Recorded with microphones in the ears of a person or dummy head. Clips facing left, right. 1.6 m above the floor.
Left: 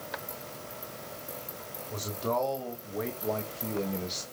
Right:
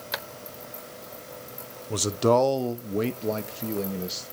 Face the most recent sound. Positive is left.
turn(degrees=-10)  # may be behind; listen again after turning